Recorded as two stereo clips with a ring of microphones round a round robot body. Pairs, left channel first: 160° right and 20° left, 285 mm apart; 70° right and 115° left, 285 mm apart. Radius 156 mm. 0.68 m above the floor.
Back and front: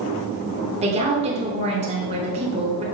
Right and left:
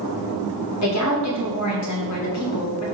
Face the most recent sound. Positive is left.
turn(degrees=-45)